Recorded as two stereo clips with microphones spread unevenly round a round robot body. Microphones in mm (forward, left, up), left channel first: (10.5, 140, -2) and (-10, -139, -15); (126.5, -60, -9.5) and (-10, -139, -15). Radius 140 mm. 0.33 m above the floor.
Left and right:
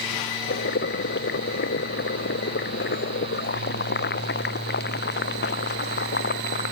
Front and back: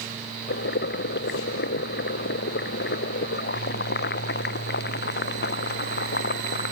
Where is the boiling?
30° left.